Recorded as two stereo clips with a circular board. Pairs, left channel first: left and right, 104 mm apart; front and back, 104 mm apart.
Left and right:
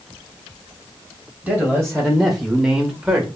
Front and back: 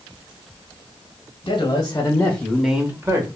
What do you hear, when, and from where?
1.4 s a man speaking: 5° left, 1.2 m; by 3.3 s 160° right, 1.0 m